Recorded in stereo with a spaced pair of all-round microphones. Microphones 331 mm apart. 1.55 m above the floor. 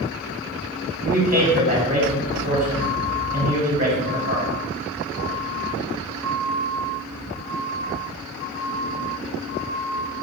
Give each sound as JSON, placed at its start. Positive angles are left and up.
{"t": 1.1, "sound": "a man speaking", "side_deg": -25, "distance_m": 1.2}